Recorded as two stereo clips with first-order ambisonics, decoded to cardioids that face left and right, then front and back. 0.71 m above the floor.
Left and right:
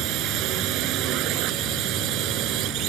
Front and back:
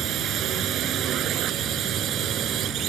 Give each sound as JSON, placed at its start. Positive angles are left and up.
{"t": 0.0, "sound": "a drone", "azimuth_deg": -130}